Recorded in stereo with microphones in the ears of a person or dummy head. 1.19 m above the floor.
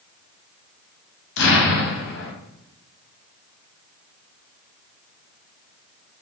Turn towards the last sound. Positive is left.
turn(degrees=65)  # may be behind; listen again after turning